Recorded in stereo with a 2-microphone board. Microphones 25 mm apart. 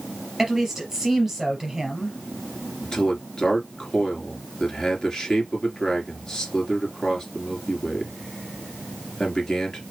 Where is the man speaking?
25° left (ahead or behind), 3 m.